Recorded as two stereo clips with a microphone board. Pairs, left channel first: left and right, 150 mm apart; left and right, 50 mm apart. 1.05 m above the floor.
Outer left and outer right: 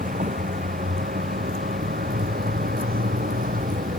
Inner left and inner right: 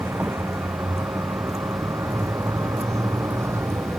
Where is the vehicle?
70° right (ahead or behind); by 4.0 s 65° right (ahead or behind).